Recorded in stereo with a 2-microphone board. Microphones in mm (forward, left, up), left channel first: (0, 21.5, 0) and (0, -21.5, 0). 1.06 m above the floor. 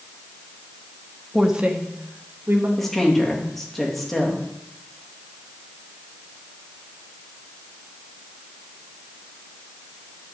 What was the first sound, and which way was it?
A woman speaking, centre (ahead or behind).